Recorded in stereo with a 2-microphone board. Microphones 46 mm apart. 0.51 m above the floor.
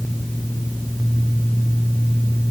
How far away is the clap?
No clap in this recording.